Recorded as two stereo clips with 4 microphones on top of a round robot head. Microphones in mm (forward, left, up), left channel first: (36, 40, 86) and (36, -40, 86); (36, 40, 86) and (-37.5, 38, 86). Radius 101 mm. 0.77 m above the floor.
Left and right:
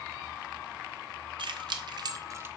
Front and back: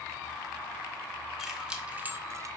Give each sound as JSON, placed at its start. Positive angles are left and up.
{"t": 1.4, "sound": "keys jangling", "azimuth_deg": -95, "distance_m": 1.0}